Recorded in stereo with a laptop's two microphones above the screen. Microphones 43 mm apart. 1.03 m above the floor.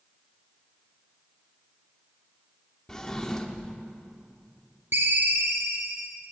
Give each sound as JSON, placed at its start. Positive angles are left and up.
{"t": 2.9, "sound": "a drawer", "side_deg": 15, "distance_m": 0.7}
{"t": 4.9, "sound": "a ringtone", "side_deg": -50, "distance_m": 1.0}